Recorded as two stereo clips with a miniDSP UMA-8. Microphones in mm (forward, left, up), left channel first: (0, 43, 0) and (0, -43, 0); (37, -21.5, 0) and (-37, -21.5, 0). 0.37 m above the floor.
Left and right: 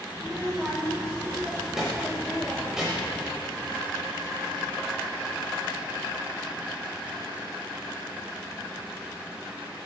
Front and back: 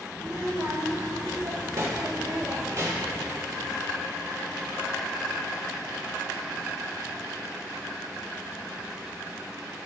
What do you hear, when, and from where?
0.1 s a child speaking: 170° right, 0.8 m